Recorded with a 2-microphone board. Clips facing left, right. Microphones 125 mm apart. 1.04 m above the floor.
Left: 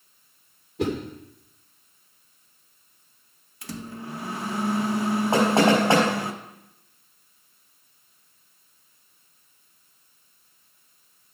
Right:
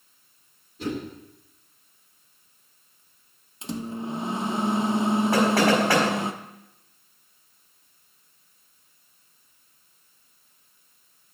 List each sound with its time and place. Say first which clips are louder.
0.8 s a whoosh: left 5 dB; 85° left, 2.5 m
3.6 s a microwave: right 5 dB; 20° right (ahead or behind), 0.7 m
5.3 s knocking: left 3 dB; 20° left (ahead or behind), 4 m